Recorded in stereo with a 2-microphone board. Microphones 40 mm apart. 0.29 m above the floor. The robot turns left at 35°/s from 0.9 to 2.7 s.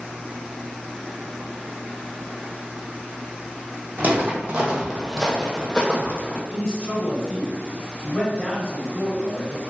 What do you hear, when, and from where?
4.0 s footsteps: 45° right (ahead or behind), 0.9 m; by 6.4 s 45° left (ahead or behind), 0.9 m
6.5 s a man speaking: 20° left (ahead or behind), 1.1 m